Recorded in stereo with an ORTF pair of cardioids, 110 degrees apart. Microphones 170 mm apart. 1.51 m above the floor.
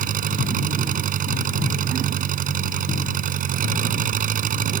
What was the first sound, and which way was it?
An engine running, 55° right.